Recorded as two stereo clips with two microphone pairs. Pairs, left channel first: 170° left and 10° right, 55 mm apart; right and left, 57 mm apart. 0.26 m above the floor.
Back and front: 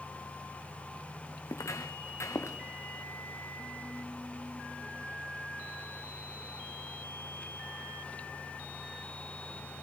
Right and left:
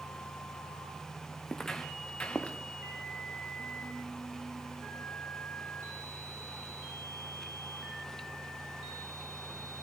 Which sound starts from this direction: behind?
Footsteps, at 1.5 s.